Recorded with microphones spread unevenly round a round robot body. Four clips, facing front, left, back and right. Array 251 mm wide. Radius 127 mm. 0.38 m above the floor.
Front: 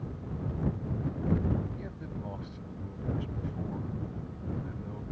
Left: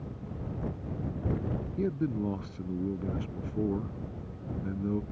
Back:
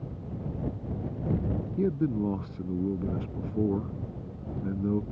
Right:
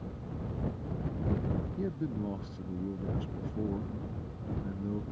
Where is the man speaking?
165° left.